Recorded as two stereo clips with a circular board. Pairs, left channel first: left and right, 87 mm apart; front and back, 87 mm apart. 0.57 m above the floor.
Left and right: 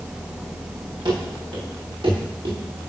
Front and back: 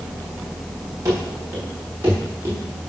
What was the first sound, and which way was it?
Running footsteps, 125° right.